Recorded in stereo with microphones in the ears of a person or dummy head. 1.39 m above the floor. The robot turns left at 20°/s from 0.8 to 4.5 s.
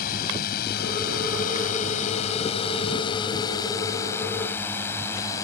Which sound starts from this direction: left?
A drone, at 0.0 s.